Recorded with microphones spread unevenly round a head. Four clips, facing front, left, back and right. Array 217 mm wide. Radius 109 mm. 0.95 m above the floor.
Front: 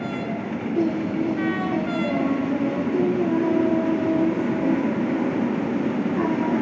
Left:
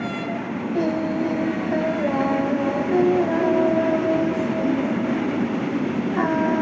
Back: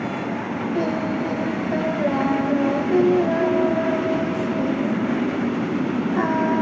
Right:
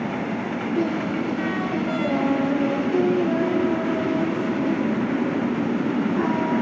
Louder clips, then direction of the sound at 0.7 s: Left 2 dB, front 1 dB; 120° left.